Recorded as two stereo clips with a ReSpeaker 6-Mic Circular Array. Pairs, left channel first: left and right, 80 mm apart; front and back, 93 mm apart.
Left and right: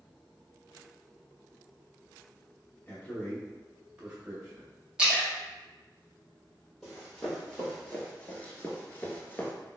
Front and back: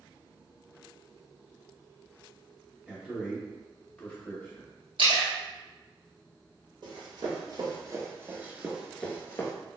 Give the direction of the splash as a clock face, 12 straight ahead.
6 o'clock.